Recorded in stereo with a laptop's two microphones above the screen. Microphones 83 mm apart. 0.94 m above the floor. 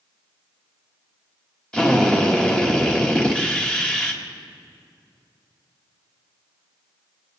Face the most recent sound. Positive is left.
turn(degrees=10)  # may be behind; listen again after turning